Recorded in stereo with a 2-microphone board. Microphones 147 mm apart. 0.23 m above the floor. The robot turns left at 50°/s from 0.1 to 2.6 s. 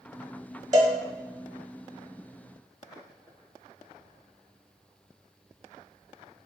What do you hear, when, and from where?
0.7 s a cowbell: 25° right (ahead or behind), 0.6 m; by 0.9 s 15° right (ahead or behind), 0.6 m